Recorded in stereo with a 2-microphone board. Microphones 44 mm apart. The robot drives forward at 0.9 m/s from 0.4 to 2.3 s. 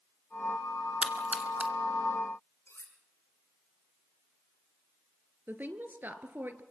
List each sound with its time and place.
1.0 s a splash: 25° right (ahead or behind), 2.5 m; by 1.7 s 30° right (ahead or behind), 1.9 m
2.7 s cutlery clinking: 70° left (ahead or behind), 5.5 m
5.5 s a woman speaking: 45° right (ahead or behind), 2.5 m